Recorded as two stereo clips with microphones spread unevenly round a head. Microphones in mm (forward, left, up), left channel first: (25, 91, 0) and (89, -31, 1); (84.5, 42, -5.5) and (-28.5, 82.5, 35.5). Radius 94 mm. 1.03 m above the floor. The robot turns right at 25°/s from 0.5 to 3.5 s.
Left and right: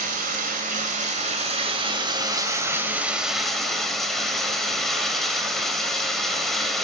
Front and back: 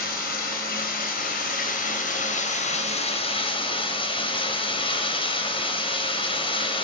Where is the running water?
45° right, 2 m; by 6.8 s 30° left, 2 m.